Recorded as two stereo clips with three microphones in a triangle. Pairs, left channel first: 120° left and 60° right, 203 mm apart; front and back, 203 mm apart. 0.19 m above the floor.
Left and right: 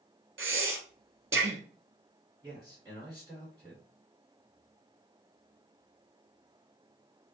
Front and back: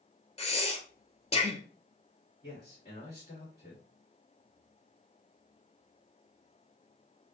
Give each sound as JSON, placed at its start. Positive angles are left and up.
{"t": 0.4, "sound": "breathing", "azimuth_deg": -60, "distance_m": 0.5}
{"t": 2.4, "sound": "a man speaking", "azimuth_deg": 5, "distance_m": 1.9}